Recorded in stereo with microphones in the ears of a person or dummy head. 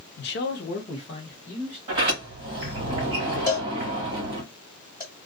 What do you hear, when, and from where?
0.2 s a man speaking: 50° left (ahead or behind), 0.6 m; by 1.8 s 20° left (ahead or behind), 1.5 m
1.9 s a sliding door: 25° right (ahead or behind), 1.3 m
3.5 s a cowbell: 20° left (ahead or behind), 1.8 m